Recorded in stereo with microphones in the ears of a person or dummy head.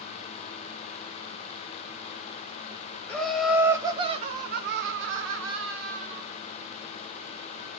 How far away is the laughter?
About 0.8 m.